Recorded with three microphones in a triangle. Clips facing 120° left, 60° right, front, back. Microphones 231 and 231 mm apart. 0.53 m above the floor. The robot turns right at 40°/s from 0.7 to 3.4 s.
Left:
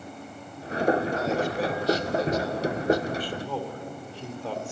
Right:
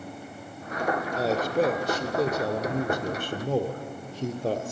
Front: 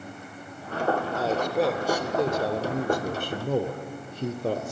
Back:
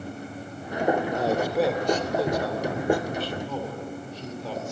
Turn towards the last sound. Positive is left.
turn(degrees=-20)